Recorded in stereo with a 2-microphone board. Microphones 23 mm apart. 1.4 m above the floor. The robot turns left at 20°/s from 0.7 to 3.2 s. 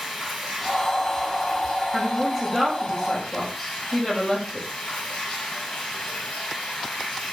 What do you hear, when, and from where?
0.0 s running water: straight behind, 6.5 m; by 7.3 s 130° left, 6.5 m
1.9 s a woman speaking: centre (ahead or behind), 6 m; by 4.7 s 25° left (ahead or behind), 6 m